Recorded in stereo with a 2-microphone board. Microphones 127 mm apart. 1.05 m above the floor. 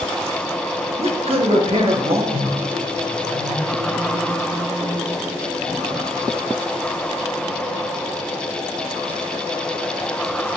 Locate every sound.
1.0 s a man speaking: 50° right (ahead or behind), 1.2 m
2.3 s a microwave: 60° right (ahead or behind), 1.4 m